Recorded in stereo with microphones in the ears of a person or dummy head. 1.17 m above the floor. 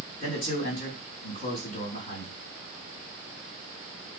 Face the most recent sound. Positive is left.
turn(degrees=60)  # may be behind; listen again after turning